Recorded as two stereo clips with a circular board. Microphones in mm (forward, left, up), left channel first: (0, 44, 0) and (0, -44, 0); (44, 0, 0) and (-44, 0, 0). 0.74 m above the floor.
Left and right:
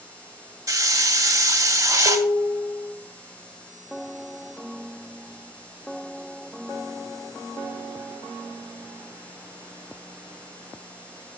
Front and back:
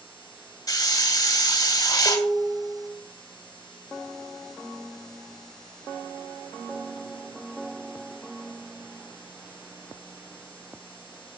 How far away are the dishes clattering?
About 2 m.